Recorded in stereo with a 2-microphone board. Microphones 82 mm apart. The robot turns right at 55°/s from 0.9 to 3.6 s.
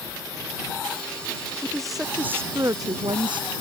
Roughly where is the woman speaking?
Behind.